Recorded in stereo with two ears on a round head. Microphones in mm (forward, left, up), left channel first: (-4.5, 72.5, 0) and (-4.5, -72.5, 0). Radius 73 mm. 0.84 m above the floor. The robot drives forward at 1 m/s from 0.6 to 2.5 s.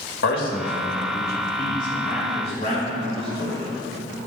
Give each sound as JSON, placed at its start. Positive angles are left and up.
{"t": 0.2, "sound": "a man speaking", "side_deg": 65, "distance_m": 1.4}